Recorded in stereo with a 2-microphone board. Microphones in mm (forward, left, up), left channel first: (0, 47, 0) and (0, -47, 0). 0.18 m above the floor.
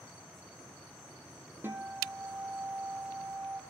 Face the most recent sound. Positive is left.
turn(degrees=-20)  # may be behind; listen again after turning